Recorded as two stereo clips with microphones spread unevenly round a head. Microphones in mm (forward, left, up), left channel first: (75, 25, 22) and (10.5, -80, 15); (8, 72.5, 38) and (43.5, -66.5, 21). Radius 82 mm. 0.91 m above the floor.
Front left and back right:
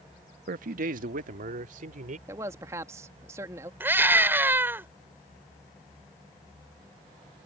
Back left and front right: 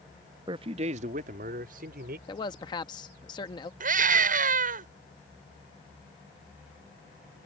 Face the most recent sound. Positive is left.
turn(degrees=-50)